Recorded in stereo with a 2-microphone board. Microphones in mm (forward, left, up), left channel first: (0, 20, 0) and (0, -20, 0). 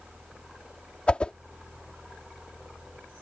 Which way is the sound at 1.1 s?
30° left (ahead or behind).